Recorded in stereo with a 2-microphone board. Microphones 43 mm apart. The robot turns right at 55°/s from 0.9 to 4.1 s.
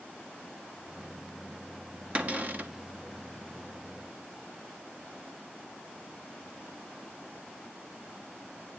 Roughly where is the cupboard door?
Behind right.